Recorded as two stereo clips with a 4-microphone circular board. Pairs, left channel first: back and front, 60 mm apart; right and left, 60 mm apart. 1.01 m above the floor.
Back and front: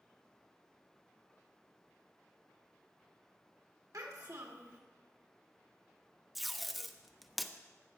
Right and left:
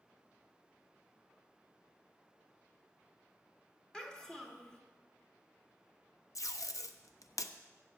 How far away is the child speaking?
About 1.8 m.